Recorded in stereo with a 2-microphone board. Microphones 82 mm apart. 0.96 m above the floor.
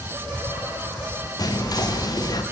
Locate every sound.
1.4 s whispering: 50° left (ahead or behind), 0.6 m